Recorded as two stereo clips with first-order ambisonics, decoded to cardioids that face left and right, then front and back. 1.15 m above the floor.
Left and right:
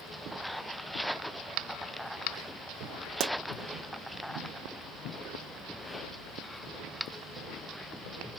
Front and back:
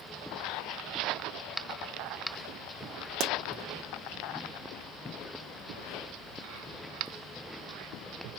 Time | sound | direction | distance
3.2 | a pop | 135° right | 0.5 m